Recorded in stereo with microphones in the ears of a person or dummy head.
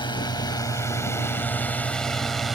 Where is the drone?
25° left (ahead or behind); by 2.6 s centre (ahead or behind).